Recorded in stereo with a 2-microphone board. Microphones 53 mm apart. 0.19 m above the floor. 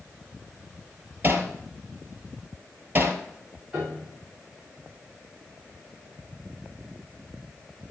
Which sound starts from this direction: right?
Hammering, at 1.2 s.